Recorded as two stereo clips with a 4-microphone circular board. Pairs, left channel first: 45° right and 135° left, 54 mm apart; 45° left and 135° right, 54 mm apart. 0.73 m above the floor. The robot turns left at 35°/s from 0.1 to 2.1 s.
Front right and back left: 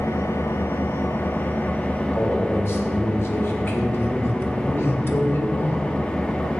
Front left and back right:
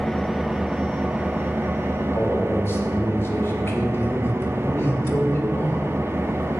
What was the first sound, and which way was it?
An engine running, 45° right.